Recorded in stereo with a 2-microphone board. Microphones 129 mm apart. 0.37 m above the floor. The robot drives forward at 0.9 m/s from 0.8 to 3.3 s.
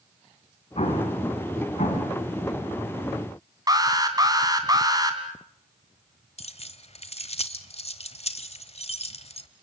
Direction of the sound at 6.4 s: 55° left (ahead or behind).